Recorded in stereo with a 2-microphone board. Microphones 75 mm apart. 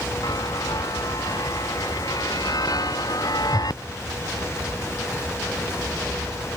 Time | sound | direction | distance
0.2 | a chime | 60° left (ahead or behind) | ?